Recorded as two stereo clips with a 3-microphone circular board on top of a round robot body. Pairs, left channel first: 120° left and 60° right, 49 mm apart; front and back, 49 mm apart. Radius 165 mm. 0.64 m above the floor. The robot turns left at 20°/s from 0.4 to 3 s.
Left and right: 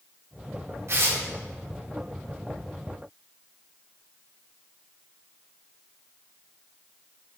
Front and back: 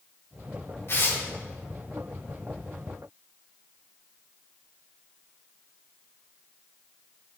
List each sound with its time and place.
0.9 s tearing paper: 35° right, 2.5 m; by 1.2 s 45° right, 2.5 m